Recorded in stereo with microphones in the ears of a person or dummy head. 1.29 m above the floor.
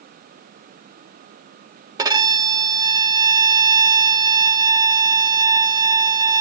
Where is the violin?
20° right (ahead or behind), 0.6 m.